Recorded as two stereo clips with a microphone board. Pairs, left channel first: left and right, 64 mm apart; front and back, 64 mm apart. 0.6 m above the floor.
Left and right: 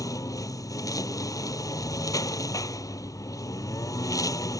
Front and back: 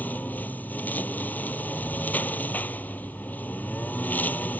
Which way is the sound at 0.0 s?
65° left.